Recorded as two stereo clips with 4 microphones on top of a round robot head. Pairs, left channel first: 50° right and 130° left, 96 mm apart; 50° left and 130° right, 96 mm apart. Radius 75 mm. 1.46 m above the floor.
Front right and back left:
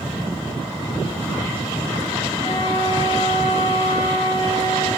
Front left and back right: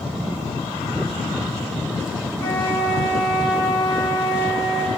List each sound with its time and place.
2.4 s a flute: 10° right, 4.5 m